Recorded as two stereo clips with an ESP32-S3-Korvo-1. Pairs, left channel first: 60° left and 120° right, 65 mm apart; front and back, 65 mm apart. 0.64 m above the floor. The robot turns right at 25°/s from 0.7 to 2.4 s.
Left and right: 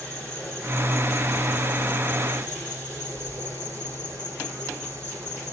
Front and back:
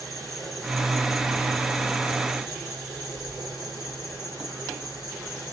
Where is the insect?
145° left, 9 m; by 5.5 s 175° right, 9 m.